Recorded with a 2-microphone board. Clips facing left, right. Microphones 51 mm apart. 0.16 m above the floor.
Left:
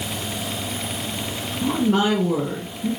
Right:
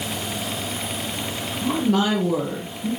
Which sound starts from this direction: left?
A woman speaking, at 1.6 s.